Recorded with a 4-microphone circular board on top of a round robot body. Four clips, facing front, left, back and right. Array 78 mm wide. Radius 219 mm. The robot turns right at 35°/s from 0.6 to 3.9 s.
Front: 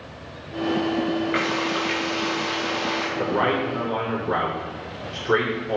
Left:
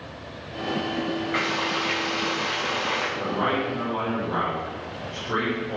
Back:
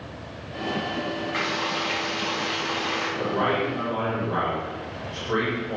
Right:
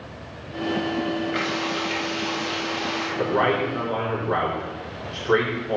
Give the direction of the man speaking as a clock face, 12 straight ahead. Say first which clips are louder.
Right 6 dB, front 2 dB; 2 o'clock.